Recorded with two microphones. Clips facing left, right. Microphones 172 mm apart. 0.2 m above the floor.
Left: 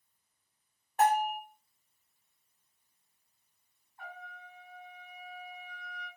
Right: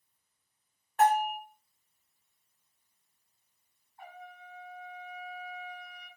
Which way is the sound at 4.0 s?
20° right (ahead or behind).